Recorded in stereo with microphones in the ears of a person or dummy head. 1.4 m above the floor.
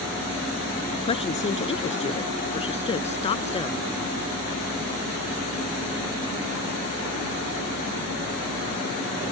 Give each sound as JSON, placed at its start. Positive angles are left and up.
{"t": 1.0, "sound": "a woman speaking", "side_deg": 30}